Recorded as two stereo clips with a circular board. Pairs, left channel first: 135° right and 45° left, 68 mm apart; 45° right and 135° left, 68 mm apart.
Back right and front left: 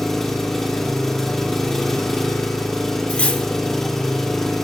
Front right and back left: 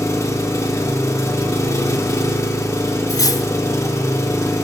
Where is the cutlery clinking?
65° right, 0.7 m.